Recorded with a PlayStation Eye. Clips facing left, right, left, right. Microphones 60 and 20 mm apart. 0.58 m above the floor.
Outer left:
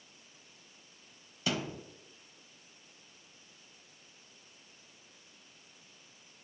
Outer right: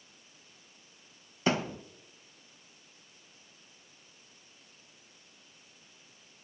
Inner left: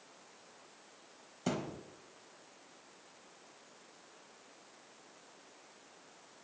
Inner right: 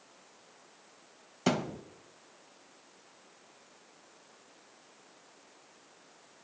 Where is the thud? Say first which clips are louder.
Outer right 5 dB, inner right 7 dB; 35° right (ahead or behind), 0.8 m.